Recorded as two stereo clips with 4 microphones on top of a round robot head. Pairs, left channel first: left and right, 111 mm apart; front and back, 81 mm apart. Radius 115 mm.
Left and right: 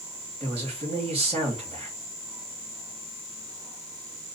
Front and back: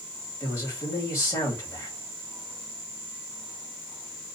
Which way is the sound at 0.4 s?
60° right.